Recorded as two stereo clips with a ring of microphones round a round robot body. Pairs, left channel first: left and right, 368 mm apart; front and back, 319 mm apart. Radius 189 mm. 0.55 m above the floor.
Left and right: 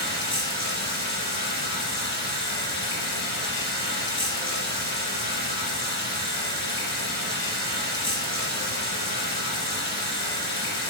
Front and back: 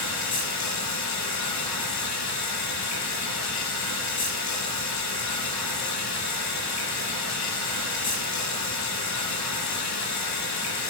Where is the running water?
30° left, 4 m.